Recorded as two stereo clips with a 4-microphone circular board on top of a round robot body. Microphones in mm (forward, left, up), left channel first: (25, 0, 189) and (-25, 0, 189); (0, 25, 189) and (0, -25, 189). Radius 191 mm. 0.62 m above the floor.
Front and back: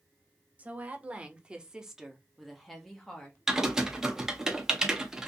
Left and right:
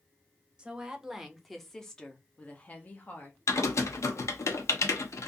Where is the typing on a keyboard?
100° left, 0.7 m.